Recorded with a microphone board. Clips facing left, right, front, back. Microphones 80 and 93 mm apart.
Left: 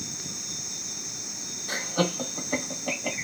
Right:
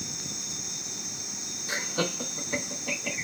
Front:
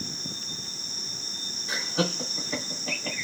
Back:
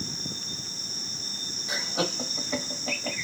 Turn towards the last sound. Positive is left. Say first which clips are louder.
# left 3 dB, front 2 dB
turn(degrees=105)